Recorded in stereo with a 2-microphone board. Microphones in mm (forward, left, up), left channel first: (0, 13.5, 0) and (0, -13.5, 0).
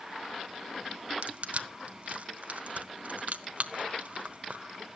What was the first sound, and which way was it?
Crushing, 55° right (ahead or behind).